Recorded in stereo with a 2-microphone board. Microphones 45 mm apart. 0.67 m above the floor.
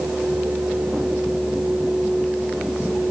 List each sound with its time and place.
Only background noise.